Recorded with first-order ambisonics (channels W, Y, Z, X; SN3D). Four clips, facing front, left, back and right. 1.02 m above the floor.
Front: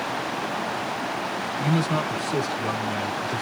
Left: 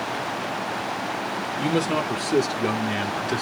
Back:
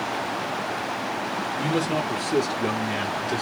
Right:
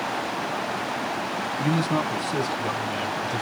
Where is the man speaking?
110° left, 4 m.